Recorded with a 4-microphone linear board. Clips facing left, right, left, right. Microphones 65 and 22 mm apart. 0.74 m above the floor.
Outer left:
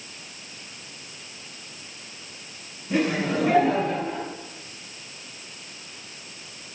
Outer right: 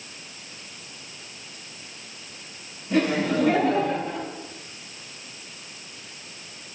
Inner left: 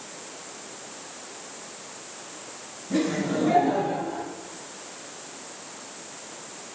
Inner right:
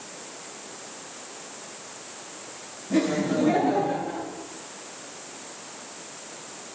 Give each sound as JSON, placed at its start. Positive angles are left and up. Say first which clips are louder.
{"t": 2.9, "sound": "laughter", "louder": "outer right 2 dB, inner right 2 dB", "side_deg": 0, "distance_m": 6.0}